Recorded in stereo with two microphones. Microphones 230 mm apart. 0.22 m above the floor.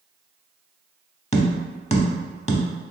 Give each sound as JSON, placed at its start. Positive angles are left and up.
{"t": 1.3, "sound": "tapping", "side_deg": 30, "distance_m": 0.5}